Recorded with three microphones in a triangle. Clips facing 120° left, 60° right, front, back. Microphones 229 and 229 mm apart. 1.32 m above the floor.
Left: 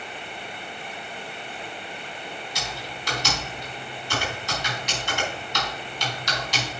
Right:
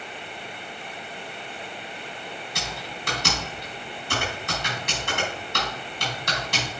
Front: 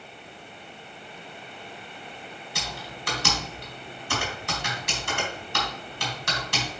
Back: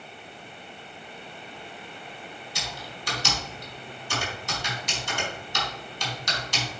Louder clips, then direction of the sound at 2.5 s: Even, front 3 dB; 25° right.